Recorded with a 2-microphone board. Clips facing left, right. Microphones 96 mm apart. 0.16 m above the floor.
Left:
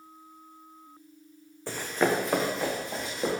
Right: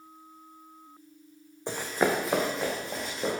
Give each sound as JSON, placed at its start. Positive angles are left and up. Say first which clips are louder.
{"t": 1.7, "sound": "running footsteps", "louder": "even", "side_deg": -20, "distance_m": 0.6}